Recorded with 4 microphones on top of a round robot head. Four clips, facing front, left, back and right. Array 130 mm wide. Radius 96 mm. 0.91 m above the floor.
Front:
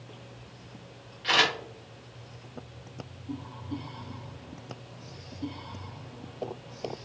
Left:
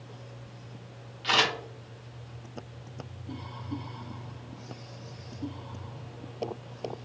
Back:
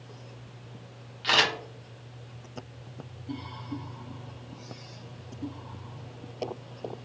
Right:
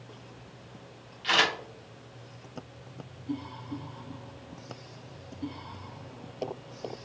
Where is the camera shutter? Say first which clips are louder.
Even, even; 170° left, 1.8 m.